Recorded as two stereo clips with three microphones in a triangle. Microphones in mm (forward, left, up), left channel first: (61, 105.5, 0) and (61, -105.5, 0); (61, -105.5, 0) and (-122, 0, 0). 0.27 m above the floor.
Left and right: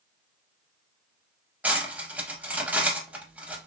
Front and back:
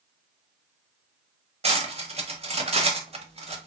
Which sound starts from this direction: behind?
Cutlery clinking, at 1.6 s.